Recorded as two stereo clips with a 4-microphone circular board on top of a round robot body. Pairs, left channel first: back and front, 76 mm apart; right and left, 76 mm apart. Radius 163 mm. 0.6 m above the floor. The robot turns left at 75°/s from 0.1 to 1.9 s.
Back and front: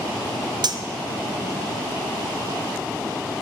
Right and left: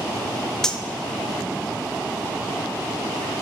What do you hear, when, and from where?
0.6 s cutlery clinking: 5° right, 0.5 m; by 0.8 s 20° right, 0.5 m